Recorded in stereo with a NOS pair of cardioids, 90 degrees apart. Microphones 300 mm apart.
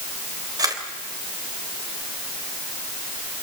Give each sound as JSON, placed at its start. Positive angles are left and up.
{"t": 0.6, "sound": "a camera shutter", "azimuth_deg": -10, "distance_m": 3.5}